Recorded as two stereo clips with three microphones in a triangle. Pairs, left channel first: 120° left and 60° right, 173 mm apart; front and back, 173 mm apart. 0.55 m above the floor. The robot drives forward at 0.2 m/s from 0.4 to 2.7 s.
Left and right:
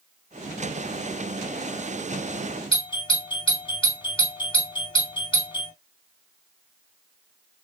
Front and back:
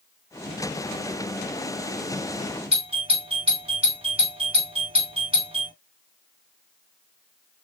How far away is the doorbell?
About 2 m.